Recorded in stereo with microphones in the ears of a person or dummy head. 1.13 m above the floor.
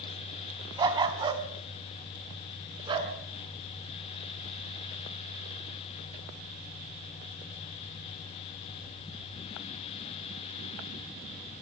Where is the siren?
I don't hear a siren.